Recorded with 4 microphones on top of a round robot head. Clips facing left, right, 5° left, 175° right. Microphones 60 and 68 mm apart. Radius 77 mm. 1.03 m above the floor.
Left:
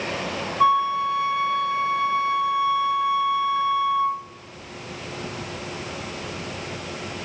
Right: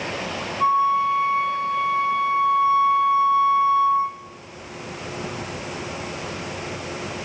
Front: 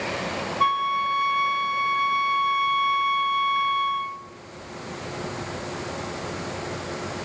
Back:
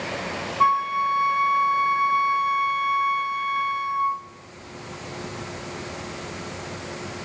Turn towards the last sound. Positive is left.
turn(degrees=120)